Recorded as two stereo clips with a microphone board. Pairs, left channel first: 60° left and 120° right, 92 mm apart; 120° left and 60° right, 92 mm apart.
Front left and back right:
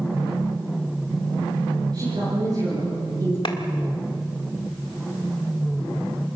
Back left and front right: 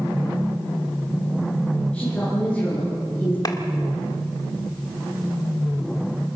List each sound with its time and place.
1.9 s a woman speaking: 160° right, 8.5 m
3.5 s a clap: 80° left, 1.6 m